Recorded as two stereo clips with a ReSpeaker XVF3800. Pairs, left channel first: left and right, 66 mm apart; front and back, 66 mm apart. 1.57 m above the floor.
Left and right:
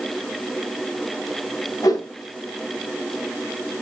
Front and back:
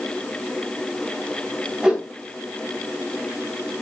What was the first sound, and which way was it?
A whoosh, 100° left.